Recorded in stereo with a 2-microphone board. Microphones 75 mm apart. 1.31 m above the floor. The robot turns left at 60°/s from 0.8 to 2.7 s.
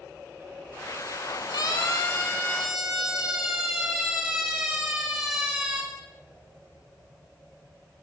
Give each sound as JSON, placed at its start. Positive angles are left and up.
{"t": 1.5, "sound": "a siren", "side_deg": 60, "distance_m": 6.0}